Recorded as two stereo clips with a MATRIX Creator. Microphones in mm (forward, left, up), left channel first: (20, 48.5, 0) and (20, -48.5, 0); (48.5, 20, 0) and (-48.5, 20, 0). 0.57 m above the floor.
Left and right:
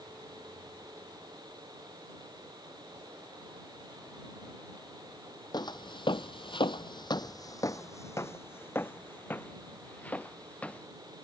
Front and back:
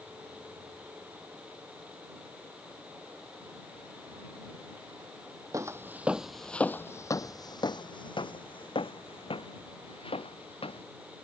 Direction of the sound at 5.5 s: 125° left.